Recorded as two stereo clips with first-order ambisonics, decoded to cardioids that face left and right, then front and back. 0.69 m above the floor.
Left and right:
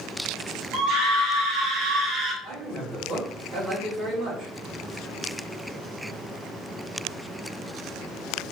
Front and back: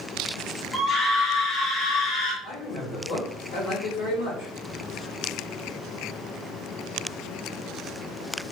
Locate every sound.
0.7 s a scream: 90° right, 2 m; by 2.3 s 40° right, 2.0 m
2.4 s a man speaking: 30° right, 2 m